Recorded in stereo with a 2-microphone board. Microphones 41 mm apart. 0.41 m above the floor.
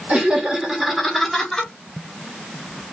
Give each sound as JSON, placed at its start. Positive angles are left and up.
{"t": 0.1, "sound": "laughter", "side_deg": -25, "distance_m": 1.3}